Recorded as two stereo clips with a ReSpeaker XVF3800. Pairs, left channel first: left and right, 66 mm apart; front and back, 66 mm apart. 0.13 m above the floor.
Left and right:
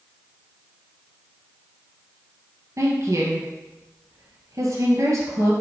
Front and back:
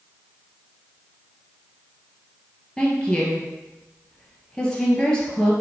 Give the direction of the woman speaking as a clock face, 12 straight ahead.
2 o'clock.